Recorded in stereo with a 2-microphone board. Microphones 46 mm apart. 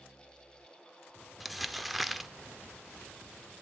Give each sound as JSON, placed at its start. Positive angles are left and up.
{"t": 1.4, "sound": "crumpling", "side_deg": 0, "distance_m": 0.5}